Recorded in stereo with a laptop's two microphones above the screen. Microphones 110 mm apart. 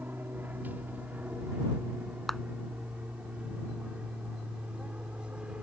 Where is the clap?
5° left (ahead or behind).